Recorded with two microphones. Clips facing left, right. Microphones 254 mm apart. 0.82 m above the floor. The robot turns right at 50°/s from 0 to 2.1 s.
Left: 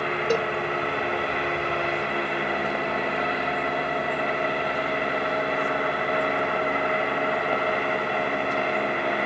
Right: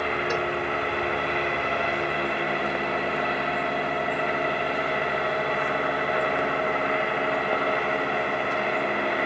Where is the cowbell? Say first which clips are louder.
Left 7 dB; 40° left (ahead or behind); by 0.5 s 45° left (ahead or behind).